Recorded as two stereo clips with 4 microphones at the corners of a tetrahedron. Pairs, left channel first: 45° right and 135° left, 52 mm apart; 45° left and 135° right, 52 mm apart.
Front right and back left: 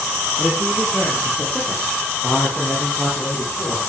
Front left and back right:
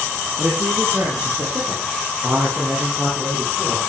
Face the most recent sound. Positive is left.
turn(degrees=-105)